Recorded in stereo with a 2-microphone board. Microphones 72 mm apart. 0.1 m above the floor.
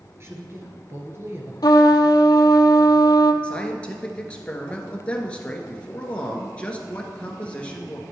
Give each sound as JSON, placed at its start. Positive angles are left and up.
{"t": 0.2, "sound": "a woman speaking", "side_deg": -40, "distance_m": 1.5}
{"t": 1.6, "sound": "a trumpet", "side_deg": 70, "distance_m": 0.6}
{"t": 3.4, "sound": "a man speaking", "side_deg": 15, "distance_m": 1.3}